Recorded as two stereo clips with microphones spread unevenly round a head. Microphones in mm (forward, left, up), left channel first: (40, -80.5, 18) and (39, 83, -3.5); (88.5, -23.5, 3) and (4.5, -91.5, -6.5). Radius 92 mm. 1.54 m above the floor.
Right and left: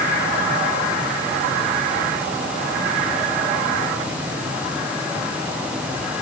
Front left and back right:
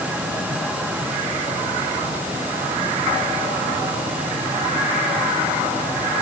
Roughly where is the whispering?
No whispering in this recording.